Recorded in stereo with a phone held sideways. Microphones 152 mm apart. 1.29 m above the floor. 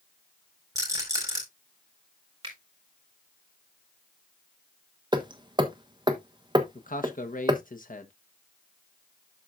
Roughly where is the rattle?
Right.